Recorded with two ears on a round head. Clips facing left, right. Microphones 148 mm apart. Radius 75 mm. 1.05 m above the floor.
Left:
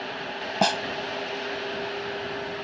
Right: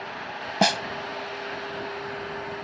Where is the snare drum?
10° right (ahead or behind).